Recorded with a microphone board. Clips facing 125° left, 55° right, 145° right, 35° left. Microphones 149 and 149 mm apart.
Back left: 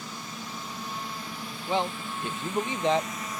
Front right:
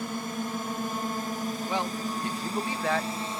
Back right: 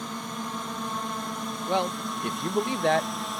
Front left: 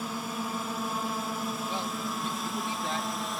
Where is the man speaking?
165° right.